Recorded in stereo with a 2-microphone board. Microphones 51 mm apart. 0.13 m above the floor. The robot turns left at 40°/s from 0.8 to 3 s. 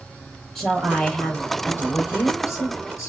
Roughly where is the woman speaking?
Behind.